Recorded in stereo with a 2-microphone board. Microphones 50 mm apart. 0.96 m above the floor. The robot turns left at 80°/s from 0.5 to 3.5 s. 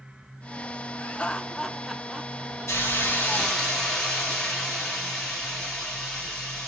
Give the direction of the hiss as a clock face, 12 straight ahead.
9 o'clock.